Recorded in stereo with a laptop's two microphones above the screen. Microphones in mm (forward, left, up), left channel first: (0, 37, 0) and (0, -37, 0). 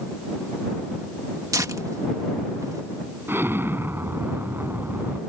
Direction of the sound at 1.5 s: 50° right (ahead or behind).